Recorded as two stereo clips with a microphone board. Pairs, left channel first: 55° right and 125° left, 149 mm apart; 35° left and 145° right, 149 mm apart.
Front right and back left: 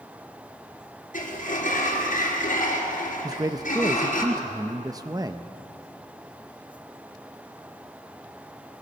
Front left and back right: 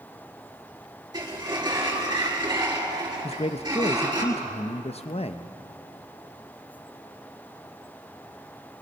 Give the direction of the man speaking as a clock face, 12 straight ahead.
10 o'clock.